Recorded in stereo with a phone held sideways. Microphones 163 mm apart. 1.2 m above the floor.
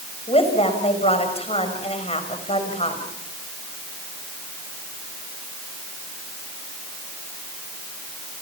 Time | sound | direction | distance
0.3 | a woman speaking | 40° left (ahead or behind) | 5.5 m